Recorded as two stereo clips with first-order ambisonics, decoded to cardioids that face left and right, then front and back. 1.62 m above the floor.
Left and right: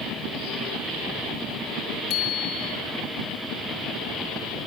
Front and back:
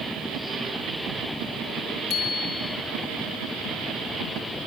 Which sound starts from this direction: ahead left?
A bicycle bell, at 2.1 s.